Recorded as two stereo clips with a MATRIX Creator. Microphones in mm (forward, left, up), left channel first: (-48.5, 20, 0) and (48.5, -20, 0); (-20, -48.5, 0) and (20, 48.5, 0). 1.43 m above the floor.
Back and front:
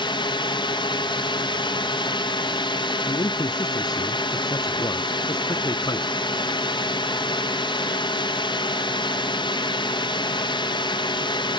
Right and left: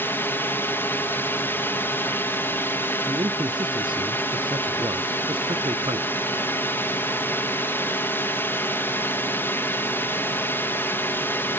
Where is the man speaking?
105° left.